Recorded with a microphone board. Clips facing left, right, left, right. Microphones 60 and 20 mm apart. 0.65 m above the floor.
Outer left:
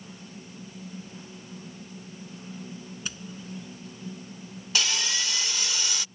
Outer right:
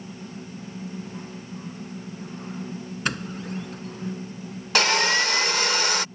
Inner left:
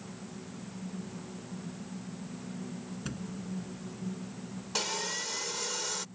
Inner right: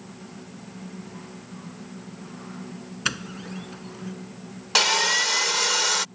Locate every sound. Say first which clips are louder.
3.0 s a doorbell: outer right 12 dB, inner right 14 dB; 65° right (ahead or behind)
4.8 s sawing: outer right 9 dB, inner right 14 dB; 55° right (ahead or behind)